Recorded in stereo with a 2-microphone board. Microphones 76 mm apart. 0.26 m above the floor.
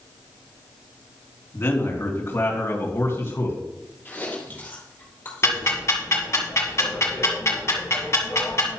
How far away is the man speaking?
About 3.5 m.